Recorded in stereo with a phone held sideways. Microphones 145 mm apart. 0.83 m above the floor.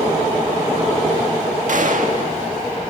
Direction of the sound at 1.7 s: 60° right (ahead or behind).